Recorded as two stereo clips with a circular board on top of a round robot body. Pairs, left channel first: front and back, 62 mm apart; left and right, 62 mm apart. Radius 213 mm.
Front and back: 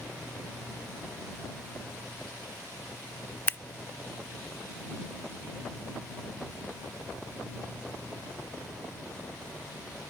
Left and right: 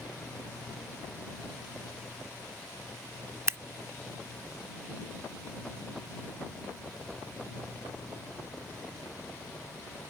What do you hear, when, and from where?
3.5 s scissors: 50° right